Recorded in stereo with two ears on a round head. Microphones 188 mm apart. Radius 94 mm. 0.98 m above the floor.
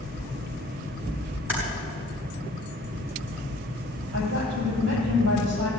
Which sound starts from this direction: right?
A woman speaking, at 4.1 s.